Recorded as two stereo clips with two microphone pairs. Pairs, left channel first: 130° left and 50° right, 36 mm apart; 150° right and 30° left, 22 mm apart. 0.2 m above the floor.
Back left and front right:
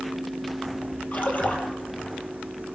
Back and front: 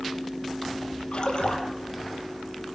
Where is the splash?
170° left, 4.5 m.